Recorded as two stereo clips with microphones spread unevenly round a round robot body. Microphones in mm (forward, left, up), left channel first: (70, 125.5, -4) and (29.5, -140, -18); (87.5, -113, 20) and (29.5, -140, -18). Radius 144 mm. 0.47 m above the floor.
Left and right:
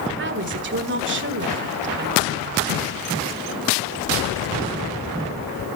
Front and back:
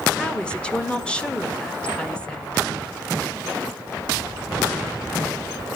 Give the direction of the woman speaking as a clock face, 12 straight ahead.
3 o'clock.